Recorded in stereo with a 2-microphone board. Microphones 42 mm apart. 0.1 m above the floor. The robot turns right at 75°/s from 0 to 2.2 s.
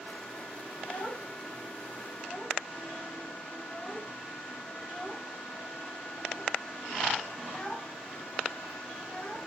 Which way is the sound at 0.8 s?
55° left (ahead or behind).